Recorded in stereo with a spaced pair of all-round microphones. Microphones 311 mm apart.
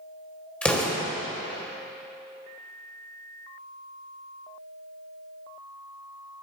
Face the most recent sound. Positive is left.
turn(degrees=5)  # may be behind; listen again after turning